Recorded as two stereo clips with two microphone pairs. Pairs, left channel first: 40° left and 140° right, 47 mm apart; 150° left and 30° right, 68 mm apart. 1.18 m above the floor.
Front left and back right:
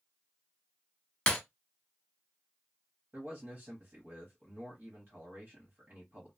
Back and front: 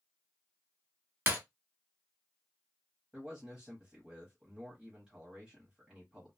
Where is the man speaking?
100° right, 1.2 m.